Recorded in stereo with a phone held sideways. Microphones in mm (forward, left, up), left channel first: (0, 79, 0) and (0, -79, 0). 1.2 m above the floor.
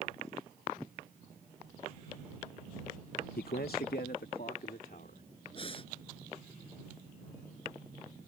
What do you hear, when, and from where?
3.4 s a man speaking: 85° left; by 5.2 s 75° left (ahead or behind)
5.5 s breathing: 35° left (ahead or behind)